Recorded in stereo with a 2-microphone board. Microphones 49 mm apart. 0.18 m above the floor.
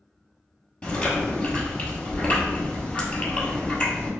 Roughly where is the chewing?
Left.